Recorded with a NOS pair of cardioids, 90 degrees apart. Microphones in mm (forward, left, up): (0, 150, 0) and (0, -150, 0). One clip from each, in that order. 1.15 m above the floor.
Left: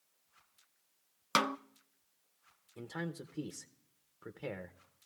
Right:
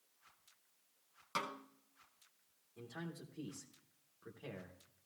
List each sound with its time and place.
1.4 s a snare drum: 65° left, 0.5 m
2.8 s a man speaking: 45° left, 0.8 m